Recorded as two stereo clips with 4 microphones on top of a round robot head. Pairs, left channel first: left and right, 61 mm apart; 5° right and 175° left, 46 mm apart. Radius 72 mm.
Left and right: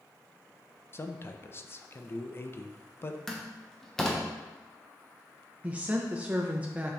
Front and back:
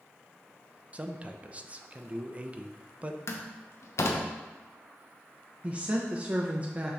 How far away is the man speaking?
About 0.8 m.